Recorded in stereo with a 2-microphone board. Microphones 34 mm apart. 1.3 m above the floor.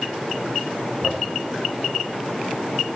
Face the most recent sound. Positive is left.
turn(degrees=-5)  # may be behind; listen again after turning